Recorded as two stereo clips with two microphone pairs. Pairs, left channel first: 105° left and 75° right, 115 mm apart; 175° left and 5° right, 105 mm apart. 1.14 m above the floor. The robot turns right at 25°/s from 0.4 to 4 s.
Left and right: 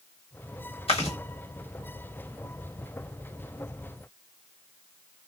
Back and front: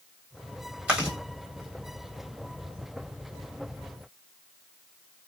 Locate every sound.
0.9 s chewing: 70° left, 1.5 m; by 1.2 s 80° left, 1.5 m